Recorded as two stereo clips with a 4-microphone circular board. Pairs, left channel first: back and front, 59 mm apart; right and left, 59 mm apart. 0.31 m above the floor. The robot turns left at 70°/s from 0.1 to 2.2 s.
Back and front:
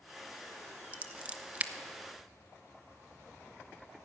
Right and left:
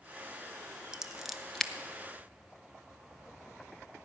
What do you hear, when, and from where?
0.9 s scissors: 30° left, 0.6 m; by 1.7 s 20° right, 0.6 m